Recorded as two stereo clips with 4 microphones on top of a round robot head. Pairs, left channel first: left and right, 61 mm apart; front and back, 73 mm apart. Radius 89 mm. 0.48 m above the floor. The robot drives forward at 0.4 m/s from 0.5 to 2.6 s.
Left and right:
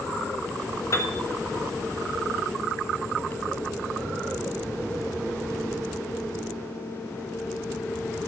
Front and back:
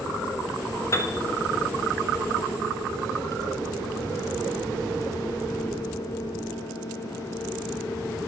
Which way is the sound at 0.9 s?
50° left.